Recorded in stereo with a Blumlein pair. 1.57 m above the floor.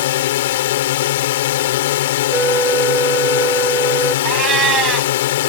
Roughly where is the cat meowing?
Ahead right.